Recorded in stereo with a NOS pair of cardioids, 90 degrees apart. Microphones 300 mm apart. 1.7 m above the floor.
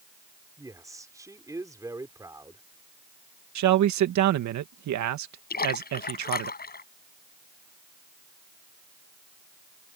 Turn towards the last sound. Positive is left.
turn(degrees=30)